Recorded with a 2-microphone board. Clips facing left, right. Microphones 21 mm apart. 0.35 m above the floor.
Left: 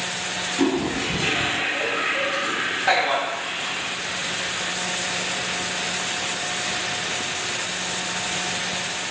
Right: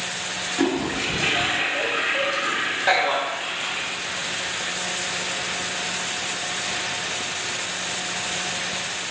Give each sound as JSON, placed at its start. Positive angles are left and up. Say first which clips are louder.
{"t": 0.6, "sound": "a toilet flushing", "louder": "left 1 dB", "side_deg": -40, "distance_m": 0.8}
{"t": 2.9, "sound": "a man speaking", "louder": "even", "side_deg": -25, "distance_m": 1.1}